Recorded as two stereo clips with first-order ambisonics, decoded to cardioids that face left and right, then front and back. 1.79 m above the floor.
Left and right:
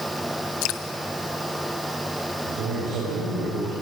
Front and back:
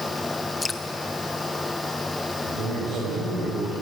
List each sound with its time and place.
0.6 s dripping: 80° left, 1.2 m
2.4 s a man speaking: 125° right, 8.5 m